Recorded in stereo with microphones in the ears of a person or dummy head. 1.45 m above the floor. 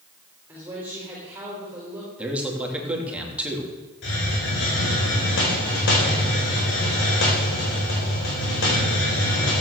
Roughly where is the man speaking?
Centre.